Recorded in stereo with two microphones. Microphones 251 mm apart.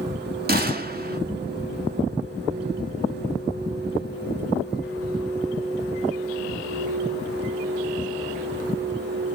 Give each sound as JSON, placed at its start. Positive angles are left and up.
{"t": 0.5, "sound": "a gunshot", "side_deg": -40, "distance_m": 1.5}